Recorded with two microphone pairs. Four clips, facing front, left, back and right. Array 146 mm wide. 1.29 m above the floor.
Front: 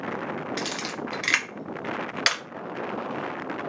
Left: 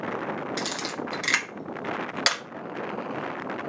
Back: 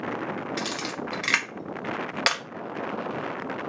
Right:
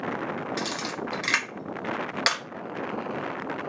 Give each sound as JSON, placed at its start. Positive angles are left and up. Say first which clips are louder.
{"t": 0.6, "sound": "a camera shutter", "louder": "even, even", "azimuth_deg": 180, "distance_m": 0.6}